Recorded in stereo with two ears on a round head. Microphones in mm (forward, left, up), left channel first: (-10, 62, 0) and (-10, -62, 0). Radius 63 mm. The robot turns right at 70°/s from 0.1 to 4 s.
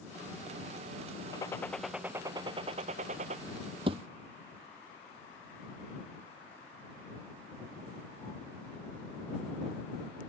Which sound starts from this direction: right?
A thud, at 3.9 s.